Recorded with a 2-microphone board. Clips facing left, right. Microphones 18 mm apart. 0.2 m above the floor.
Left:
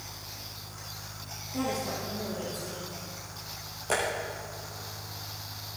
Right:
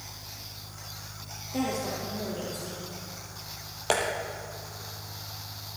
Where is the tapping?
70° right (ahead or behind), 3.5 m.